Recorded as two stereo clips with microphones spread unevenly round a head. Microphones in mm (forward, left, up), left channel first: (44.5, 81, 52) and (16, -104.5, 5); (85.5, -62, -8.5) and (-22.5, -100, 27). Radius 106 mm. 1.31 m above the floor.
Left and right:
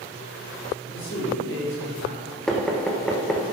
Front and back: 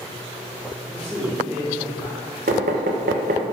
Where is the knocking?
170° left, 1.0 m.